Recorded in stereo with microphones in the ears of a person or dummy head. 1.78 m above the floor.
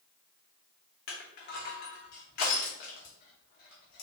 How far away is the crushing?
About 0.9 m.